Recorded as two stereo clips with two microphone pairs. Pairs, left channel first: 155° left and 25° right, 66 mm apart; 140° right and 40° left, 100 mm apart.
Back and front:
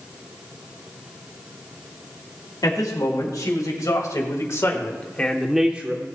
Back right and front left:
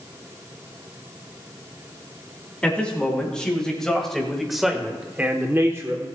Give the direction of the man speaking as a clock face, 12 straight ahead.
7 o'clock.